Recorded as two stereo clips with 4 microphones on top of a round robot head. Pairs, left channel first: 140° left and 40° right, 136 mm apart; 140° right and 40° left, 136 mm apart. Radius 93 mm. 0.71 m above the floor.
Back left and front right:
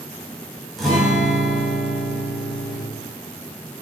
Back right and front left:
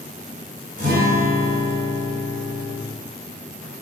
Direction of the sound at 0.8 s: 55° left.